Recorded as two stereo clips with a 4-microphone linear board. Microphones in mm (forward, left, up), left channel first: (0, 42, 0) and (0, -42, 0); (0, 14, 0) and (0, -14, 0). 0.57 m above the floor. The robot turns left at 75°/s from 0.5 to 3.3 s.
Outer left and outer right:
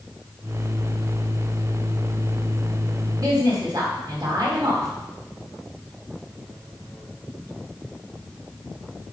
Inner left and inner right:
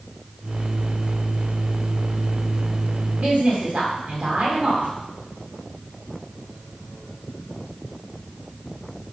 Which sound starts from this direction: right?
A woman speaking, at 3.2 s.